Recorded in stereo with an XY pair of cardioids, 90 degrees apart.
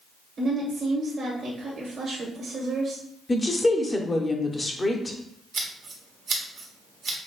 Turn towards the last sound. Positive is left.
turn(degrees=-60)